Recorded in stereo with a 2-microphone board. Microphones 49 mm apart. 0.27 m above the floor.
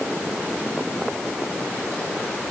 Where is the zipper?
I don't hear a zipper.